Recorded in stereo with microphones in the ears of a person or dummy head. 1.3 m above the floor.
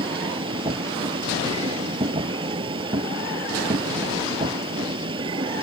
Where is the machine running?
25° right (ahead or behind).